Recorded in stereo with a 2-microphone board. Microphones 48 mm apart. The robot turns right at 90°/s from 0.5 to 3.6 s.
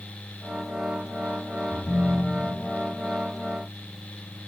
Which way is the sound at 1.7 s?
20° left.